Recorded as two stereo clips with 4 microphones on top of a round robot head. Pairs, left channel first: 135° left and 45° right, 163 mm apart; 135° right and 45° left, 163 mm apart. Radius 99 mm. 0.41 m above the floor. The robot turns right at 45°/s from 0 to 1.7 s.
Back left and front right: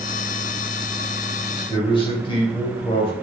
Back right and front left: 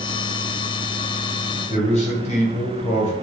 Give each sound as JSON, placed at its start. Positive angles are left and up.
{"t": 1.7, "sound": "a man speaking", "azimuth_deg": -170, "distance_m": 2.5}